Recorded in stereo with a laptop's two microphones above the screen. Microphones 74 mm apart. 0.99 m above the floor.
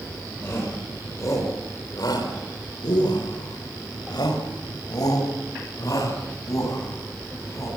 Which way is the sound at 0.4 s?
35° left (ahead or behind).